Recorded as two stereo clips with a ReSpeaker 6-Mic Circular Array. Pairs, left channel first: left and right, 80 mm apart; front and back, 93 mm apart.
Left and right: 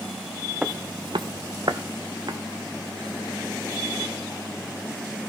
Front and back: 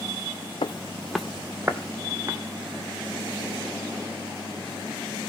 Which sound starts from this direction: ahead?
Footsteps, at 0.6 s.